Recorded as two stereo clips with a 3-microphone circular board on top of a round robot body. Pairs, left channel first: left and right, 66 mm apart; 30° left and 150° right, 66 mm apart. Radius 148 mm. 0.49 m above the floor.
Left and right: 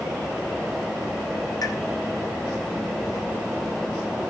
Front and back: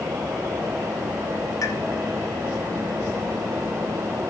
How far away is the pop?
About 4 m.